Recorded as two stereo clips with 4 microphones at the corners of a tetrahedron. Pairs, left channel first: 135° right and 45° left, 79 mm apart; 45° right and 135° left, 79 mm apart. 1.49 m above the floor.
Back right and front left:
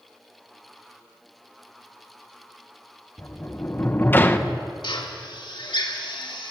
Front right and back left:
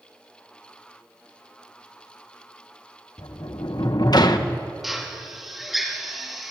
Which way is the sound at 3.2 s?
75° right.